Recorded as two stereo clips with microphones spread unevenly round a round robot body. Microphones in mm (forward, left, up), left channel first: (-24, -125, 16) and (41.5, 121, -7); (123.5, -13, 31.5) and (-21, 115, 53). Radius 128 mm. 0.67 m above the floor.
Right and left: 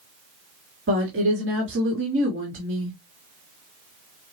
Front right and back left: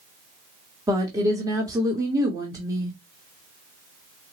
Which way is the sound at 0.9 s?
65° left.